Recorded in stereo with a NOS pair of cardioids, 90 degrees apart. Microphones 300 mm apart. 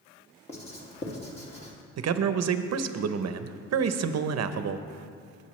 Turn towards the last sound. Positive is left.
turn(degrees=-55)